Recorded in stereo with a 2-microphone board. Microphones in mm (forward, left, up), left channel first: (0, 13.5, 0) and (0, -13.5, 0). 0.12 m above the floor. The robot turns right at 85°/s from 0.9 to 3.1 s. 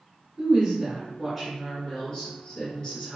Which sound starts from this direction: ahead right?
A woman speaking, at 0.4 s.